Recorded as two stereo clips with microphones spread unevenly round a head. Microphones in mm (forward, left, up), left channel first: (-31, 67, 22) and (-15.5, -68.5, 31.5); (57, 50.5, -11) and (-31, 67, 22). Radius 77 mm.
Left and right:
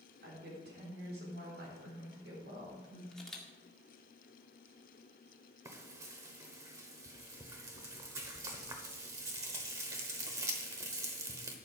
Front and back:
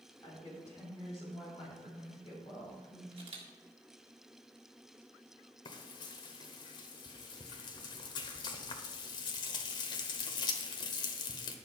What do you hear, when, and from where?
0.2 s a woman speaking: 80° right, 3.5 m; by 3.0 s 70° right, 5 m
3.1 s a camera shutter: 175° right, 1.8 m
5.7 s frying: 45° right, 0.9 m